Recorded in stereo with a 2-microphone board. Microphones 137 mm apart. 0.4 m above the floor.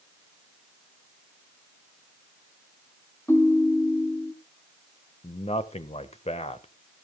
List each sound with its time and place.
3.3 s a ringtone: 20° left (ahead or behind), 1.6 m
5.2 s a man speaking: 50° left (ahead or behind), 1.2 m